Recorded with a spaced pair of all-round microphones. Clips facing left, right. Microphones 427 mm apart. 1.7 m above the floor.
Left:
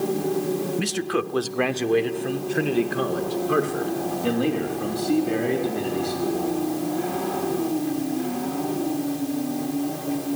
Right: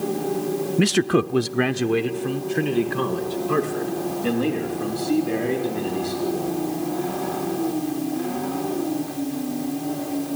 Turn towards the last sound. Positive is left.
turn(degrees=0)  # may be behind; listen again after turning